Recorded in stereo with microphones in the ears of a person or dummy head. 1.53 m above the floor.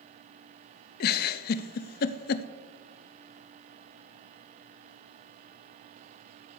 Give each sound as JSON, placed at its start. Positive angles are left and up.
{"t": 1.0, "sound": "a giggle", "side_deg": 50, "distance_m": 0.5}